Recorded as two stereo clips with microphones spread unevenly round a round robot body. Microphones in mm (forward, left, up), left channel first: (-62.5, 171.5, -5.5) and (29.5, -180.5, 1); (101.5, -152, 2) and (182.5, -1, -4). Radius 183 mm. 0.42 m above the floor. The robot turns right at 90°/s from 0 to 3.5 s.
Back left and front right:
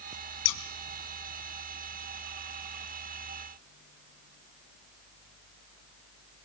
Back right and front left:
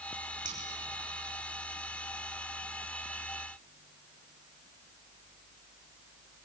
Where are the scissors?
130° left, 3 m; by 0.6 s 145° left, 3 m.